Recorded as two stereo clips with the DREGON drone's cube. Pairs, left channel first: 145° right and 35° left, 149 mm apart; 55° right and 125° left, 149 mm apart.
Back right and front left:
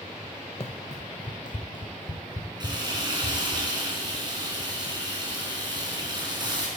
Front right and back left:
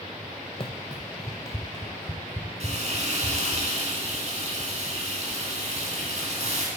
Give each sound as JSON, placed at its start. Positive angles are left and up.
{"t": 0.6, "sound": "running footsteps", "azimuth_deg": -105, "distance_m": 0.5}
{"t": 2.6, "sound": "frying", "azimuth_deg": 90, "distance_m": 2.5}